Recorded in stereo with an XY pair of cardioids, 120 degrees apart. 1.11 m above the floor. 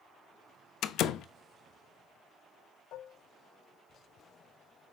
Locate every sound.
0.8 s a door slam: 65° left, 0.7 m
2.9 s dishes clattering: 70° left, 0.8 m